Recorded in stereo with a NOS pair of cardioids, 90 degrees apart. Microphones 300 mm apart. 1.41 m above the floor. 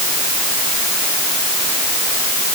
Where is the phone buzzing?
I don't hear a phone buzzing.